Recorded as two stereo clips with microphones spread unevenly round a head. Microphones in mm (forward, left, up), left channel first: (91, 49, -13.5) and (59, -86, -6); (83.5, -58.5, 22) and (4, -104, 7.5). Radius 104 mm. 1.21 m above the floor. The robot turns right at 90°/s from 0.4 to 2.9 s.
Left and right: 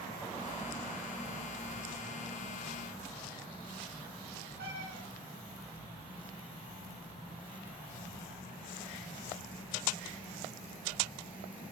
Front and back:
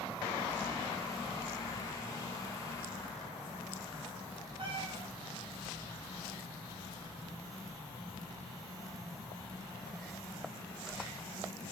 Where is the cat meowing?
120° right, 6.5 m.